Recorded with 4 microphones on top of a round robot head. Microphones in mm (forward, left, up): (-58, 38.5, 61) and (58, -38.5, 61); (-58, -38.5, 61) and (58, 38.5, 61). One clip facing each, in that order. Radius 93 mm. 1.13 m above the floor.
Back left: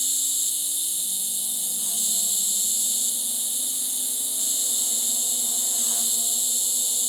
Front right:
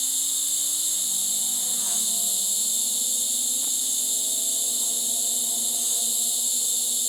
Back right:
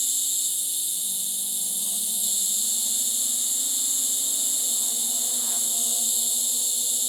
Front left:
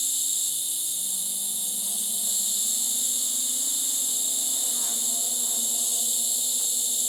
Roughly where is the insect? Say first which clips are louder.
Front right 1 dB, even; behind left.